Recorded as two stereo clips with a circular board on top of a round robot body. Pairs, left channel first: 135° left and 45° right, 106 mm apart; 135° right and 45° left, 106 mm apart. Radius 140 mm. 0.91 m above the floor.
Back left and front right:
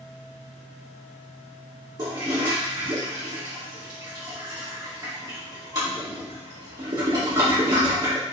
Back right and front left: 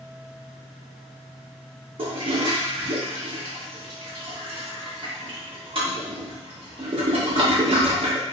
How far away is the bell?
No bell in this recording.